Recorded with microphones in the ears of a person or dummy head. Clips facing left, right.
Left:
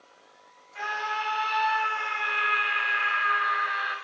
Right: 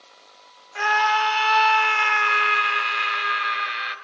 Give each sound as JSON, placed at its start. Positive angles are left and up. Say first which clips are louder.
{"t": 0.8, "sound": "a scream", "louder": "right 11 dB", "side_deg": -65, "distance_m": 1.2}